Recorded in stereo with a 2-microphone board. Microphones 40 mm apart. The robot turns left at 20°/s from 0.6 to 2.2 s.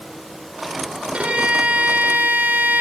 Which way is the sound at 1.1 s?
30° right (ahead or behind).